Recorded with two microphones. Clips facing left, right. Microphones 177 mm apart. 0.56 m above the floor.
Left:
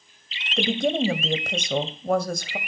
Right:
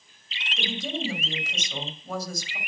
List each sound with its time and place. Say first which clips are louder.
0.6 s a woman speaking: left 10 dB; 60° left (ahead or behind), 2.5 m